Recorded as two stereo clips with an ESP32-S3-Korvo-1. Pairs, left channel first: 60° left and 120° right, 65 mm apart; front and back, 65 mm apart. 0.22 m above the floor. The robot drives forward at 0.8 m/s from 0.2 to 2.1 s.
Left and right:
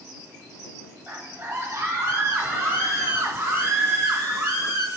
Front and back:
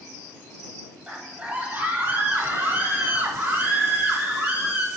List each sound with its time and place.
1.1 s a scream: 135° right, 1.7 m; by 4.9 s 160° right, 2 m